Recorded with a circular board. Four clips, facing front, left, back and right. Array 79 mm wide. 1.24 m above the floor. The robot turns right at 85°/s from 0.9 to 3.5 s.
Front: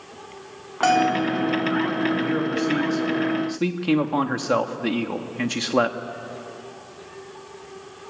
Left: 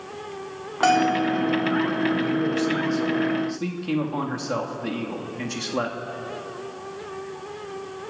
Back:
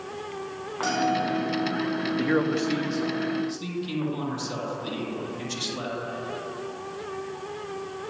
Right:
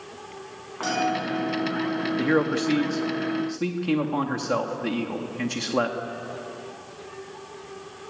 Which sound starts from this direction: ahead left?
A bell, at 0.8 s.